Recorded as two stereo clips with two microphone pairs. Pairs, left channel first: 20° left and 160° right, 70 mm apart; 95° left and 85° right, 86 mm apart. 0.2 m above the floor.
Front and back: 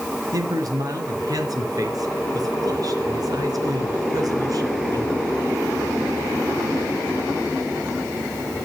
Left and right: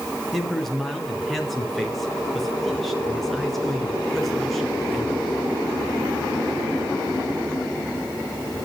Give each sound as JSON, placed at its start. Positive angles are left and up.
{"t": 0.3, "sound": "a man speaking", "azimuth_deg": 180, "distance_m": 3.0}